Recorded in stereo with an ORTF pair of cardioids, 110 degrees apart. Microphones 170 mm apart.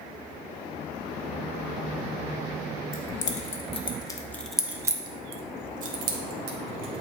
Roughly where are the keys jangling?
Ahead left.